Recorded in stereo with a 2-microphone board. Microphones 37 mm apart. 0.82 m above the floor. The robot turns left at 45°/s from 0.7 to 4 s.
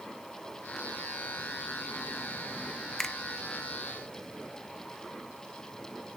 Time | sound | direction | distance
3.0 | a finger snap | 15° left (ahead or behind) | 0.7 m